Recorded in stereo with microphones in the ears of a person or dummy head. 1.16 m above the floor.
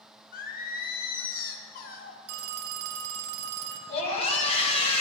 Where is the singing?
45° left (ahead or behind), 0.7 m.